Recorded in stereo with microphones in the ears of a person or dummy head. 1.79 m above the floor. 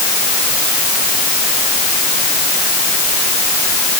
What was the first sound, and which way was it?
Only background noise.